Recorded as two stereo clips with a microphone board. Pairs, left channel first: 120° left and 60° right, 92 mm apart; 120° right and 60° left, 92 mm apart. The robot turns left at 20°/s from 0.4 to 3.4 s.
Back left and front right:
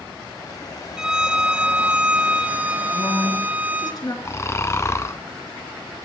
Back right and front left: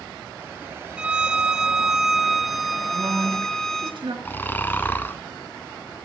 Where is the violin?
5° left, 0.7 m; by 3.9 s 45° right, 0.7 m.